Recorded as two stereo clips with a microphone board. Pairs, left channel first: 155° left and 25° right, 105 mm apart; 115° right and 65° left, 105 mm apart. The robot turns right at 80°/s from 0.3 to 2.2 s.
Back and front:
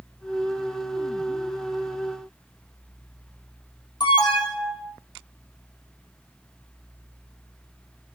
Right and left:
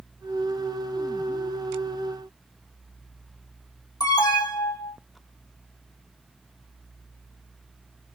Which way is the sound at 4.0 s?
165° right.